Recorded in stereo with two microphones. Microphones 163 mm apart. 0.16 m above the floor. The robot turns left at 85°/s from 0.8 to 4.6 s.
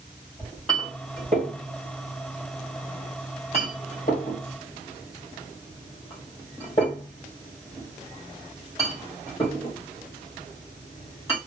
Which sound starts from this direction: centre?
A clink, at 0.4 s.